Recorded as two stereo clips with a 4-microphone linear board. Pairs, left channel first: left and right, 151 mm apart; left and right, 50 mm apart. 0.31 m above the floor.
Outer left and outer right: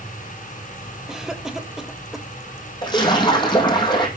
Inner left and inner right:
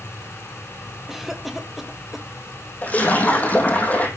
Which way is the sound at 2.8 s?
30° left (ahead or behind).